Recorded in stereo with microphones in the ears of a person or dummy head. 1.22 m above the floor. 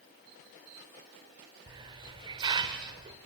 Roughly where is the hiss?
Right.